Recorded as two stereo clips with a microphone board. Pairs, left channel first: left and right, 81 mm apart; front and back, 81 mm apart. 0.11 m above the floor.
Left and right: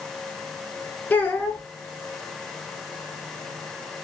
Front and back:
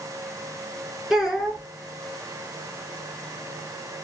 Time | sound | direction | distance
1.1 | a child speaking | 100° left | 0.9 m